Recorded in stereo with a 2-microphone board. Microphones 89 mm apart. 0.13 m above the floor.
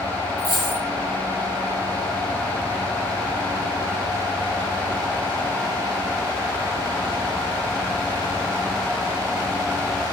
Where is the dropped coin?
85° left, 3 m.